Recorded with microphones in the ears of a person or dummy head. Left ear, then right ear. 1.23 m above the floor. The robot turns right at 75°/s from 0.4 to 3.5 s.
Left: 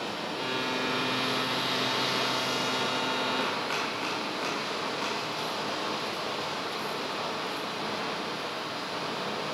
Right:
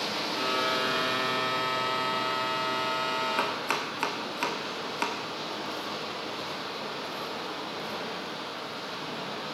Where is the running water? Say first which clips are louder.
Right 3 dB; 70° right, 1.3 m; by 9.5 s 165° left, 1.3 m.